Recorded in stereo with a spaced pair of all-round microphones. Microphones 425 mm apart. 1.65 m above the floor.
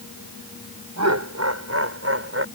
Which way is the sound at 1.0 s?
40° right (ahead or behind).